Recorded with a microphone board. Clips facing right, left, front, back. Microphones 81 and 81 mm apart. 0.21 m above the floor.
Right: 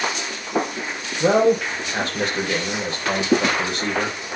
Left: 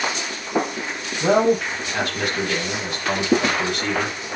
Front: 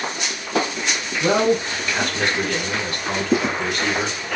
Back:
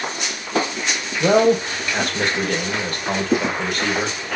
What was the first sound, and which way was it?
A man speaking, 140° right.